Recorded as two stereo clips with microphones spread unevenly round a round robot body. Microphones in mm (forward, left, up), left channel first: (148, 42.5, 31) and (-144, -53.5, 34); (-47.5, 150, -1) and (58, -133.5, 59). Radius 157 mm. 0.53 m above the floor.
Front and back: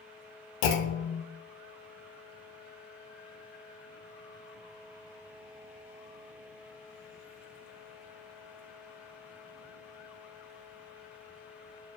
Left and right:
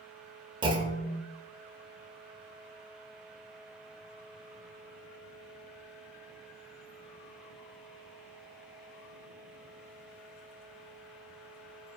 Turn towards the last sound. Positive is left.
turn(degrees=5)